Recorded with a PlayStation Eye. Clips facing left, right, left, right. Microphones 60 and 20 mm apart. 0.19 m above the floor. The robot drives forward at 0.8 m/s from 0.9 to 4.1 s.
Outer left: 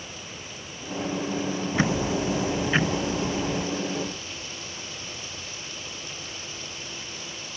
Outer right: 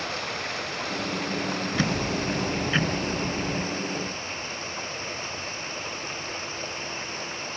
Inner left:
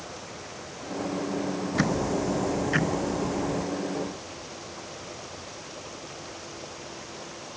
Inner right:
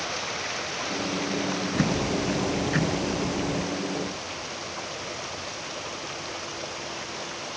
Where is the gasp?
I don't hear a gasp.